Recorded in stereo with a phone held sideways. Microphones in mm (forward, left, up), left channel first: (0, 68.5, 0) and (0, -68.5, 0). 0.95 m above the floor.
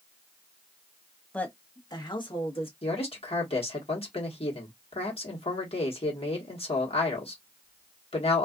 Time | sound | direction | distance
1.3 | a woman speaking | 10° left (ahead or behind) | 0.7 m
2.8 | a man speaking | 50° left (ahead or behind) | 1.3 m